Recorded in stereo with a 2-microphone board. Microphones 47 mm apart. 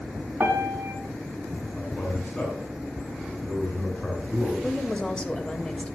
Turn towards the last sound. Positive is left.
turn(degrees=20)  # may be behind; listen again after turning